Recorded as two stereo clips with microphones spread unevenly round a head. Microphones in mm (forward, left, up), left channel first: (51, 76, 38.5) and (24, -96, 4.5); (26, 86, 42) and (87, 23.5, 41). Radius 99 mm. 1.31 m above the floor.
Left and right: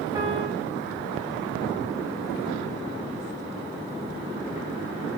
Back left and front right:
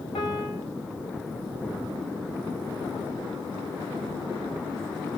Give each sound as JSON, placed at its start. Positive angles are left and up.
{"t": 0.1, "sound": "a piano", "azimuth_deg": -175, "distance_m": 5.5}